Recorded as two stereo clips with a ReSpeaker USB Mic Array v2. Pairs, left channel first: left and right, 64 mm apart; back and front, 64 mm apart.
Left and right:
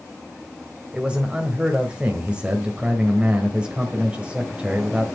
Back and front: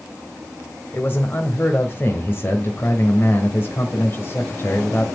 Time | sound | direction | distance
0.9 | a man speaking | 150° right | 1.4 m